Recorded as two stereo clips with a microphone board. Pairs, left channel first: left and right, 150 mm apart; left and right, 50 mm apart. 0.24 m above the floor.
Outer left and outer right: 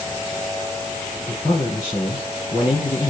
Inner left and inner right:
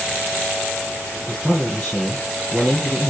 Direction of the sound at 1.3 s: 20° left (ahead or behind).